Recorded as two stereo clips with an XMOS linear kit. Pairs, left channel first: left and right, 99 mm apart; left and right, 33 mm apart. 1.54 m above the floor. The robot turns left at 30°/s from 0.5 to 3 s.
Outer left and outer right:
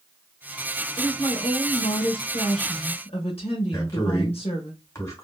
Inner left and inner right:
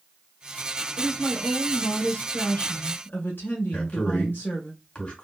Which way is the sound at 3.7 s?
30° left (ahead or behind).